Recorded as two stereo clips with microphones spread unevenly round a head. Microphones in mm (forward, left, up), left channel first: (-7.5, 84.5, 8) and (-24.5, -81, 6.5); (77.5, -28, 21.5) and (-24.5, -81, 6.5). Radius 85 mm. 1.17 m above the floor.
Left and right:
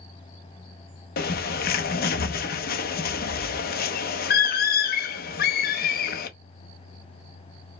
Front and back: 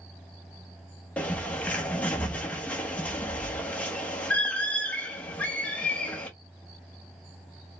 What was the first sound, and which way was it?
A bird, 105° left.